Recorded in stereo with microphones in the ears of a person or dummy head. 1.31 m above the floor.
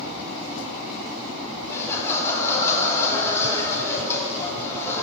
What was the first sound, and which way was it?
Laughter, 10° left (ahead or behind).